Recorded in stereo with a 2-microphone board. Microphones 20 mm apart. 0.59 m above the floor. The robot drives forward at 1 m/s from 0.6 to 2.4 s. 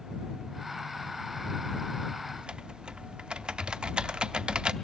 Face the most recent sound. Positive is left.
turn(degrees=-55)  # may be behind; listen again after turning